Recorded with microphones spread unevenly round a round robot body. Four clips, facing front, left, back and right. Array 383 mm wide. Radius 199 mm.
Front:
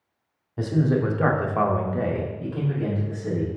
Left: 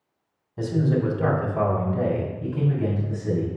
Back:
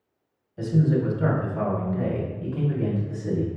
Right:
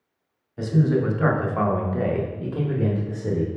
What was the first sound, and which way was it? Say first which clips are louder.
A man speaking: right 2 dB, even; 20° left.